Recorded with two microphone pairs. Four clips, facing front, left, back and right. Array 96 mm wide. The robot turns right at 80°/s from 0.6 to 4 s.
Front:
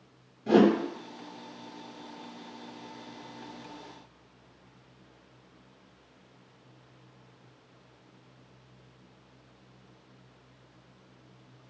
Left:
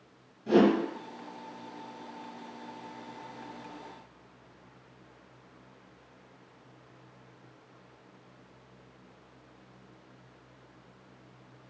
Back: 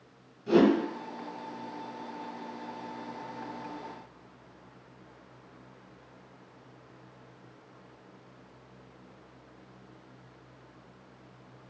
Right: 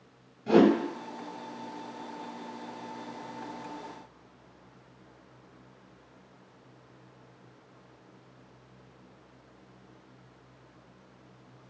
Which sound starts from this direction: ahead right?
A whoosh, at 0.5 s.